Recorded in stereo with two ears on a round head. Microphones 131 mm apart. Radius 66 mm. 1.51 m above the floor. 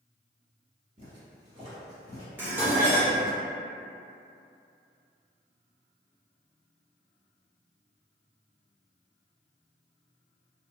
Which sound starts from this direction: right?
Footsteps, at 1.0 s.